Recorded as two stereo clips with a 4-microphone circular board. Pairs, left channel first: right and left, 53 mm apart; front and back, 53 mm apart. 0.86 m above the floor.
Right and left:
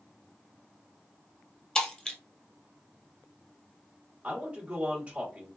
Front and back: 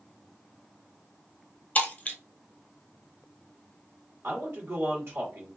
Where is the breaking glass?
25° right, 0.9 m.